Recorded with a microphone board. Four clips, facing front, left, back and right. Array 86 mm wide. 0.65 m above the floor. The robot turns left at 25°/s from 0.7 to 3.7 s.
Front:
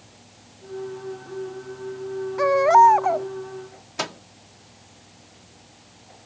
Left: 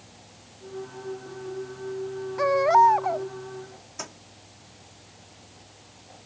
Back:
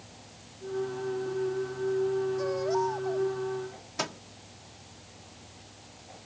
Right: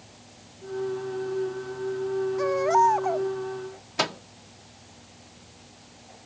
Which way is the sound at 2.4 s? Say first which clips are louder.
Left 4 dB, front 14 dB; 25° left.